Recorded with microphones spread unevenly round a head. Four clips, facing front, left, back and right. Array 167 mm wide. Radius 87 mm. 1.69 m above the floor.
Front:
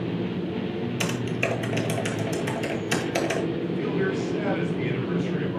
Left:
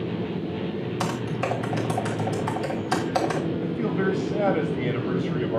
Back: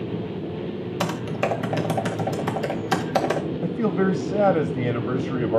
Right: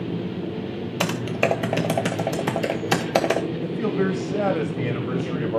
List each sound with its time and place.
1.0 s typing on a keyboard: 115° right, 1.2 m
3.6 s a man speaking: 165° right, 1.3 m